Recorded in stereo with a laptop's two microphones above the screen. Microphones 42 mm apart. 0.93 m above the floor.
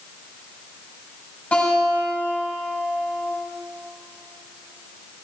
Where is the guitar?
30° left (ahead or behind), 6 m.